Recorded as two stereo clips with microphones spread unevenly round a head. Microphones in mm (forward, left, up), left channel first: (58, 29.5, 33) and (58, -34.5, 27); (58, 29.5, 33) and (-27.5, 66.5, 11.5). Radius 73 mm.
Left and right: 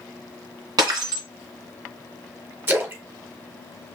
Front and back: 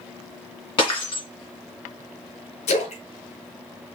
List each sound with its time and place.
0.8 s breaking glass: 75° right, 2 m
2.7 s a splash: 30° right, 1.6 m